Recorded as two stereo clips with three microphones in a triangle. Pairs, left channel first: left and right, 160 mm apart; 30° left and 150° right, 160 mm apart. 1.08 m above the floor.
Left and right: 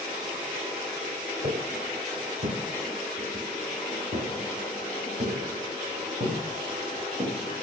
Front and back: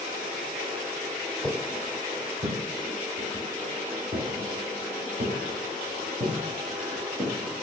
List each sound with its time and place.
1.4 s footsteps: 70° right, 1.6 m; by 7.4 s 120° right, 4 m